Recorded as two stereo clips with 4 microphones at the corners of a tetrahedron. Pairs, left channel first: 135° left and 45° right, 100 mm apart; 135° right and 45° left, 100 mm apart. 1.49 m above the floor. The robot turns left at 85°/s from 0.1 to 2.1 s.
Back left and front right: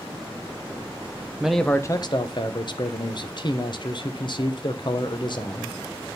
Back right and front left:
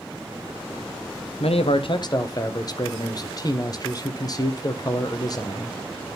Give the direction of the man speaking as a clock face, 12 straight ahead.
4 o'clock.